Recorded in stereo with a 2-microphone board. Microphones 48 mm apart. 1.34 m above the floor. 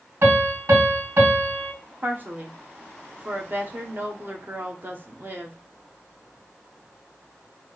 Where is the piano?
60° right (ahead or behind), 2 m.